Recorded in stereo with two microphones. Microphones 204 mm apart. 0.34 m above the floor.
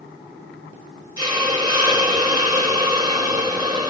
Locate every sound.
1.2 s a hiss: 20° right (ahead or behind), 1.3 m